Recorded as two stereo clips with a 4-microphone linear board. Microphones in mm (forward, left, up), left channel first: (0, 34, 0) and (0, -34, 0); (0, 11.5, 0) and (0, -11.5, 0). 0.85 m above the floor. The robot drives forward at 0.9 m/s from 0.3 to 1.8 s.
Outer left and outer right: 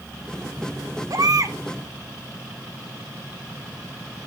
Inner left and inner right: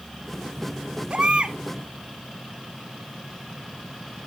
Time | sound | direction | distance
1.1 | a baby crying | 65° right (ahead or behind) | 1.1 m